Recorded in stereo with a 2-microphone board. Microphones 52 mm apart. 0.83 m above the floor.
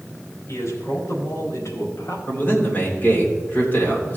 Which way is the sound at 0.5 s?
75° left (ahead or behind).